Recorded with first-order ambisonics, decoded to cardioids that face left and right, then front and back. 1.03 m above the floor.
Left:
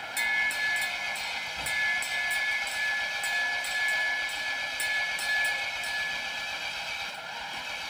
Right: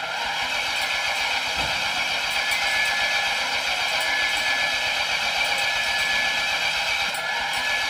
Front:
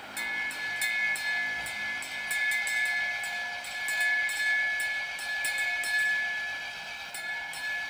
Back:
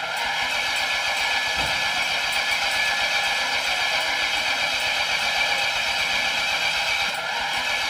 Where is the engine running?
145° right.